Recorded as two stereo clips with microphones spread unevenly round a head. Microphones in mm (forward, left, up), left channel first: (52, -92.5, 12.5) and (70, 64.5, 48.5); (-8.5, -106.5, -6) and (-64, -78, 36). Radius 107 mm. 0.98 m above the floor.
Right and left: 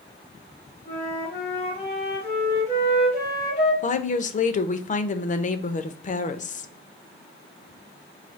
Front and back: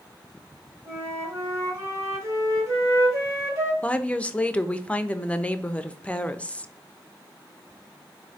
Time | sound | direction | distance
0.8 | a flute | 155° right | 3 m
3.8 | a woman speaking | 75° right | 0.7 m